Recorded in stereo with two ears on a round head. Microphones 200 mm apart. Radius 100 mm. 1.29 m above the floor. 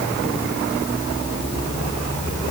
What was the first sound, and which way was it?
Only background noise.